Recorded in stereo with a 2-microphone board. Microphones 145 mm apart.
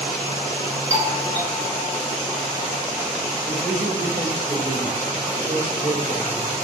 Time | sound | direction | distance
0.9 | a doorbell | 50° right (ahead or behind) | 1.7 m
3.5 | a man speaking | 40° right (ahead or behind) | 3.5 m